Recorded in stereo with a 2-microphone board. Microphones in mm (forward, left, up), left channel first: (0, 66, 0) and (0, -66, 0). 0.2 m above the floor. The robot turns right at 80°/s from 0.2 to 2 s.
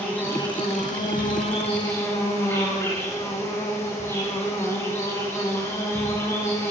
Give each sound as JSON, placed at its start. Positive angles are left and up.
{"t": 0.0, "sound": "an insect", "azimuth_deg": 15, "distance_m": 8.5}